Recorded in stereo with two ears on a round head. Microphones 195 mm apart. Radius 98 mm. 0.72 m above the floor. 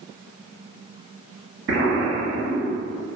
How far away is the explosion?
About 0.9 m.